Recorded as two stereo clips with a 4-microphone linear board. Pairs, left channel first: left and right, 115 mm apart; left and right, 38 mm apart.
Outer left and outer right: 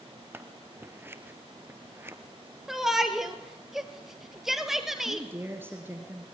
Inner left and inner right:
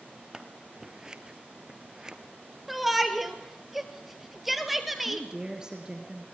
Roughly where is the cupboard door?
I don't hear a cupboard door.